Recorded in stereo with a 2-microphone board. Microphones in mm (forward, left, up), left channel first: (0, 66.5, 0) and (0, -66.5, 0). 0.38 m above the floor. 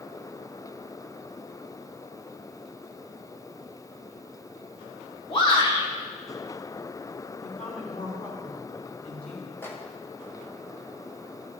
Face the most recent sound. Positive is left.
turn(degrees=20)  # may be behind; listen again after turning